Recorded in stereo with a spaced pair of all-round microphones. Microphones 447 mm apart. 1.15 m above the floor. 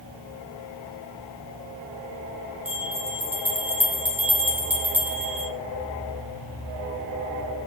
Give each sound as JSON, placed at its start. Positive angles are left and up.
{"t": 2.6, "sound": "a bell", "side_deg": -5, "distance_m": 4.0}